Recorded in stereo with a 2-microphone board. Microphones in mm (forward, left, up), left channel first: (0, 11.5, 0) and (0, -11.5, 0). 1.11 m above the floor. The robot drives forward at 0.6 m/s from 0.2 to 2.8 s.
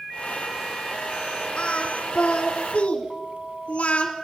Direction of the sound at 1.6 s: 50° left (ahead or behind).